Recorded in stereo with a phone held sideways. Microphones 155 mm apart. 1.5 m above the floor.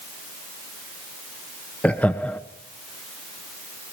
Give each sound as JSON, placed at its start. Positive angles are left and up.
{"t": 1.8, "sound": "laughter", "side_deg": 10, "distance_m": 1.1}